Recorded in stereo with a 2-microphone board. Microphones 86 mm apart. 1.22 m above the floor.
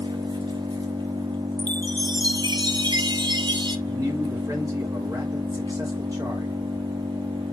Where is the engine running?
65° right (ahead or behind), 1.9 m.